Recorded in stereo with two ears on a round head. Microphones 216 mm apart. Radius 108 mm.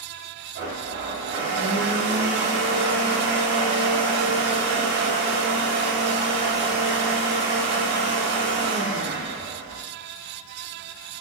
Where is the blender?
40° right (ahead or behind), 0.6 m.